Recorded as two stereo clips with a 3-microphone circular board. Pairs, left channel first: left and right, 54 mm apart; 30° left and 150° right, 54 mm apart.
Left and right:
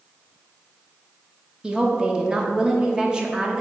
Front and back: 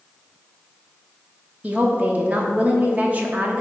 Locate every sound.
1.6 s a woman speaking: 145° right, 1.0 m